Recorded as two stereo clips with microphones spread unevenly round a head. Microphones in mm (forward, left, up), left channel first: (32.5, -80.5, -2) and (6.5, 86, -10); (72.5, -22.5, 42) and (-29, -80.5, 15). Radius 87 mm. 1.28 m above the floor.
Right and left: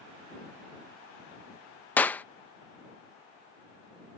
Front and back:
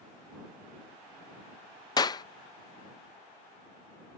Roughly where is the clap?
Ahead.